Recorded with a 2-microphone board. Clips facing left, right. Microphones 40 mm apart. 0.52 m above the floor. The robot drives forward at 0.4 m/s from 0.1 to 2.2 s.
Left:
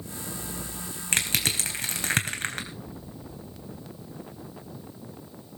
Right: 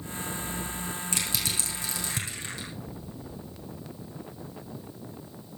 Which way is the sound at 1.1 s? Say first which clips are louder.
Left 7 dB; 50° left (ahead or behind).